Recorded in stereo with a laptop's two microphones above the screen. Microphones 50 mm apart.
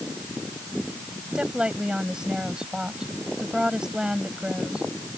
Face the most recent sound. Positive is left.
turn(degrees=-15)  # may be behind; listen again after turning